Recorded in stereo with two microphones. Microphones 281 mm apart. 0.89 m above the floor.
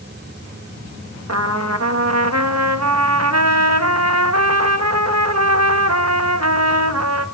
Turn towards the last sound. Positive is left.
turn(degrees=-65)  # may be behind; listen again after turning